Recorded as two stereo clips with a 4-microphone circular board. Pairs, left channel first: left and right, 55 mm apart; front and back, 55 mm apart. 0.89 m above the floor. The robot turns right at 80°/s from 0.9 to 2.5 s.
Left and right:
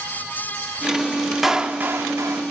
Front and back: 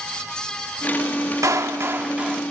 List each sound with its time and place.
1.4 s a clap: 175° right, 1.4 m; by 2.4 s 95° right, 1.4 m